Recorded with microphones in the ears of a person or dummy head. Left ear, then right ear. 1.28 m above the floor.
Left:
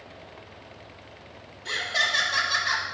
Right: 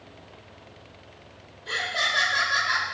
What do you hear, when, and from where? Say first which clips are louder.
1.6 s laughter: left 1 dB; 65° left (ahead or behind), 3.5 m